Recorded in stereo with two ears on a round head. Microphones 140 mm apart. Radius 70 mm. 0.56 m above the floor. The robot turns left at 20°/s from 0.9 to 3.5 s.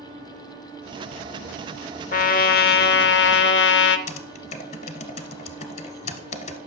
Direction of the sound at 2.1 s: 60° left (ahead or behind).